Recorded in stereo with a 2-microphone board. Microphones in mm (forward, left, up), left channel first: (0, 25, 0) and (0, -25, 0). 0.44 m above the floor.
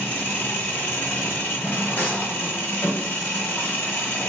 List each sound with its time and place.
0.0 s an engine running: 45° left (ahead or behind), 1.1 m
2.0 s a clap: 40° left (ahead or behind), 1.3 m